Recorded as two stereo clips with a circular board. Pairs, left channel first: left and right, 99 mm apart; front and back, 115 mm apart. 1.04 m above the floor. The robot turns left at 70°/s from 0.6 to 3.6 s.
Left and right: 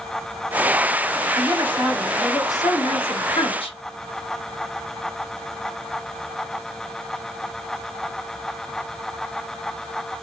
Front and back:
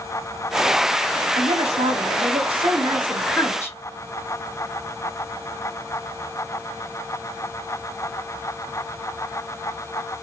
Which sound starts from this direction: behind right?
A woman speaking, at 1.4 s.